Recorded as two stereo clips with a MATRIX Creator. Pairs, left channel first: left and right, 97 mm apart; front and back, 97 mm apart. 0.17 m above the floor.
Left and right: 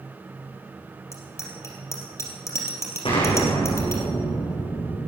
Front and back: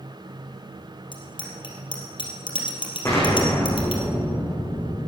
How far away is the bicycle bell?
About 3 m.